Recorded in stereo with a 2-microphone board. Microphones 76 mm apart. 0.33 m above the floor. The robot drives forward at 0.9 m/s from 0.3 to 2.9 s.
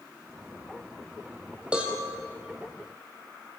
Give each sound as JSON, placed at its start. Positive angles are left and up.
{"t": 1.7, "sound": "a cowbell", "side_deg": -15, "distance_m": 3.0}